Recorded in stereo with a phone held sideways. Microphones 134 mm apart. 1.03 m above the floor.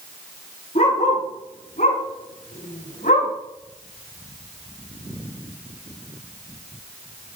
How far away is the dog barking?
About 4.5 m.